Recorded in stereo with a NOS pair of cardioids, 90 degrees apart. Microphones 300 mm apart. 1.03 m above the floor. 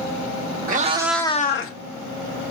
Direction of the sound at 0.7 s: 30° right.